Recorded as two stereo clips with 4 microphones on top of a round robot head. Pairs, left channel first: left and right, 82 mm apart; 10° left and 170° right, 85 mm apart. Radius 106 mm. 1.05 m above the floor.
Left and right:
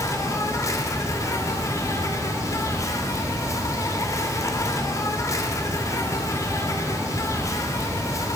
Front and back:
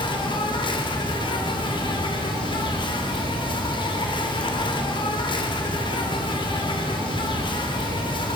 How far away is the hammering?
I don't hear hammering.